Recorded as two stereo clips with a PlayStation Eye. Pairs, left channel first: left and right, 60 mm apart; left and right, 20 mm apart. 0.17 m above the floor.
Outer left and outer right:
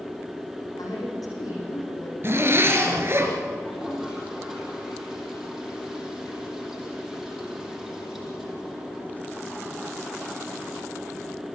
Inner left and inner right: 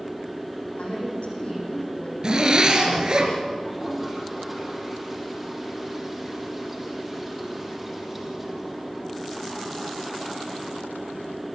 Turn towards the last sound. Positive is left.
turn(degrees=-5)  # may be behind; listen again after turning